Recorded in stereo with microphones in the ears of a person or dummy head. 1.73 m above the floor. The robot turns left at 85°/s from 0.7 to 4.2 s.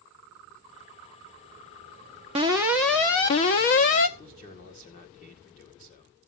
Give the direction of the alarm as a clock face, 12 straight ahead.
5 o'clock.